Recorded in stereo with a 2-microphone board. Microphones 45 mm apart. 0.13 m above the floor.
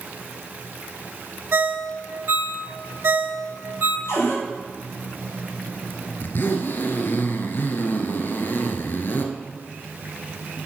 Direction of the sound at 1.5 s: 50° right (ahead or behind).